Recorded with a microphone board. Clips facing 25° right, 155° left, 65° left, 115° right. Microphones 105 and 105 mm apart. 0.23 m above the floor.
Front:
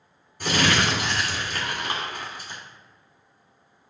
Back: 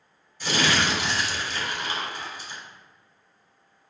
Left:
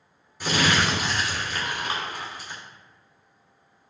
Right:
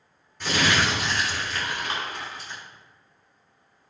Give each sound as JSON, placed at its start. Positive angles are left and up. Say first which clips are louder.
{"t": 0.4, "sound": "crumpling", "louder": "front 2 dB, left 1 dB", "azimuth_deg": -15, "distance_m": 2.5}